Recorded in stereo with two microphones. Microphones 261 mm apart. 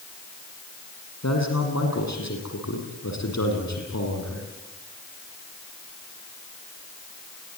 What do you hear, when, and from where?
1.2 s a man speaking: 75° left (ahead or behind), 7.5 m